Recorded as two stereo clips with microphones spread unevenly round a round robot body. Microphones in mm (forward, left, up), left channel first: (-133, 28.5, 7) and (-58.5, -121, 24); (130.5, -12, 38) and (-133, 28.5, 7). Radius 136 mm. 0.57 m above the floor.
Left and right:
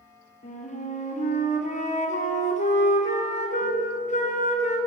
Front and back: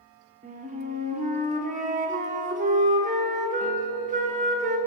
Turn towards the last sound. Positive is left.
turn(degrees=125)